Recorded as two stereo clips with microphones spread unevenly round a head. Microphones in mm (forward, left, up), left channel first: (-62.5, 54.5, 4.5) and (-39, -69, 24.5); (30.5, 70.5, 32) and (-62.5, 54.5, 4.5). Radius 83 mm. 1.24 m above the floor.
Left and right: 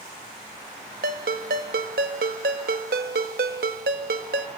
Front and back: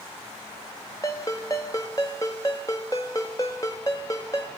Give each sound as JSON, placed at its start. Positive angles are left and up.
{"t": 1.0, "sound": "a ringtone", "azimuth_deg": -60, "distance_m": 1.3}